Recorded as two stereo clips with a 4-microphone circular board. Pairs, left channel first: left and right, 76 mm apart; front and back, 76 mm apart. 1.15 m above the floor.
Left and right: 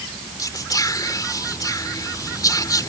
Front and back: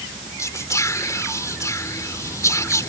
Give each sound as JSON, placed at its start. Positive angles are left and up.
{"t": 0.4, "sound": "whispering", "azimuth_deg": 50}